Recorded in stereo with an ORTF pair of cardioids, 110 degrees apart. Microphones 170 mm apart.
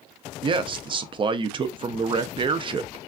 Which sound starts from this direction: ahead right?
A man speaking, at 0.4 s.